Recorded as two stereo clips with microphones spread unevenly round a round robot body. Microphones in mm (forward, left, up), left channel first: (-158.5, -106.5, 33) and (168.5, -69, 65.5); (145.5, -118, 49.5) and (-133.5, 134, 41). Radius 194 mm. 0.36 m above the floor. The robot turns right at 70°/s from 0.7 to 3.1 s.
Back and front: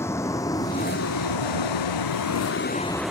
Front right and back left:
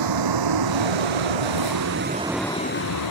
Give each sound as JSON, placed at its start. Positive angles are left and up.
{"t": 0.0, "sound": "a vehicle", "azimuth_deg": 105}